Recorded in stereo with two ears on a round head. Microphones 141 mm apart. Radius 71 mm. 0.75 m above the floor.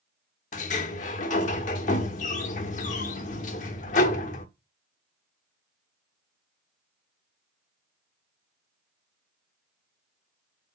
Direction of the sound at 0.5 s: 50° left (ahead or behind).